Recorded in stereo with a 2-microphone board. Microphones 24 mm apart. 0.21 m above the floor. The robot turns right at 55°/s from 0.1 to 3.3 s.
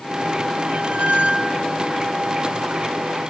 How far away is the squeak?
About 3 m.